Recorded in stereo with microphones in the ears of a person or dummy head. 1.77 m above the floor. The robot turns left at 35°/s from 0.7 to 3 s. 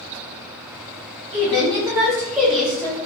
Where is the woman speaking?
140° right, 0.9 m; by 3.0 s 165° left, 0.9 m.